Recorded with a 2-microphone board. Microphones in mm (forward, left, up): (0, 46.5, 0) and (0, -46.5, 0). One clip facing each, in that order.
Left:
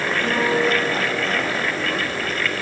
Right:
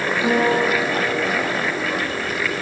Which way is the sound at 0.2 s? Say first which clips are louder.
Right 3 dB; 25° right (ahead or behind).